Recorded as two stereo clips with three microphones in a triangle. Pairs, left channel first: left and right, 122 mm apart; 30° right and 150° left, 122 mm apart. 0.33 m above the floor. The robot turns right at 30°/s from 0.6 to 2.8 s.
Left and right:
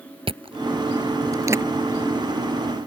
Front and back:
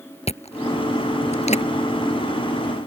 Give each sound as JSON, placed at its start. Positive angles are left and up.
{"t": 0.3, "sound": "chewing", "azimuth_deg": -50}